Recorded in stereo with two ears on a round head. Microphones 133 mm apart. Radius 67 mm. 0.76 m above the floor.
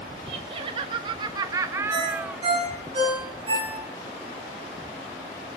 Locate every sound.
0.3 s laughter: 35° right (ahead or behind), 0.9 m; by 2.4 s 10° right (ahead or behind), 1.2 m
1.9 s a ringtone: 35° right (ahead or behind), 6.5 m